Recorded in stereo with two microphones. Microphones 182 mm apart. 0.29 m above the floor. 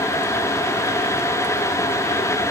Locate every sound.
Only background noise.